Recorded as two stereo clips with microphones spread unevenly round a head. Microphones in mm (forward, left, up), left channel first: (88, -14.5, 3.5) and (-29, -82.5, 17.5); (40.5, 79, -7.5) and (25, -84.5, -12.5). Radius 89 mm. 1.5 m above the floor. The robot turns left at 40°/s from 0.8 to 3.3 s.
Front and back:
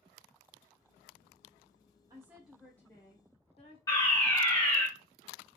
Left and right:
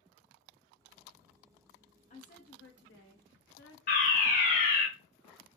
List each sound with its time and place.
2.1 s a woman speaking: 140° left, 1.0 m; by 3.8 s 90° left, 1.0 m
3.9 s a fire alarm: 85° left, 1.5 m